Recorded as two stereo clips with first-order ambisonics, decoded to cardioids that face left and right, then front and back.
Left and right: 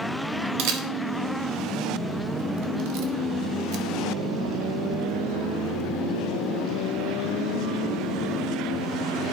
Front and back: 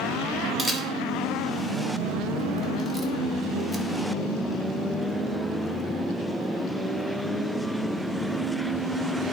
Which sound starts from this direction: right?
A camera shutter, at 0.6 s.